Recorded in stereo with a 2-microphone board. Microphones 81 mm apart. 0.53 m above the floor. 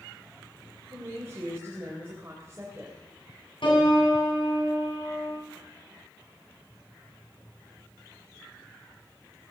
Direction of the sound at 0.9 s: 25° right (ahead or behind).